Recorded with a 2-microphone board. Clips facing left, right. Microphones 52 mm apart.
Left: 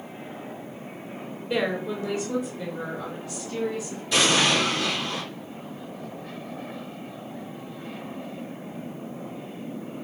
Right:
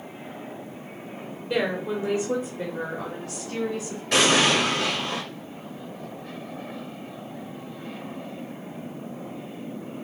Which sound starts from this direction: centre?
A woman speaking, at 1.5 s.